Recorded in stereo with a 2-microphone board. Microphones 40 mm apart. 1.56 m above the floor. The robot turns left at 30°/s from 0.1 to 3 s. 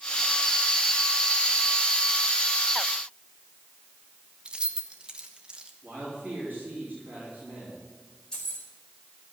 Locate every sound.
4.5 s keys jangling: 25° right (ahead or behind), 1.2 m
5.8 s a man speaking: 50° right (ahead or behind), 4.5 m
8.3 s keys jangling: 15° left (ahead or behind), 4 m